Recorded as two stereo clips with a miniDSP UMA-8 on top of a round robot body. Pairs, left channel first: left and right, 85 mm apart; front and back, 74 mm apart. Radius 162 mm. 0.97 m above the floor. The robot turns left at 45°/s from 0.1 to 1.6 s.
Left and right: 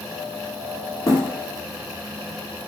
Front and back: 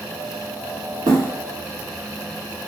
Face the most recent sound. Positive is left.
turn(degrees=120)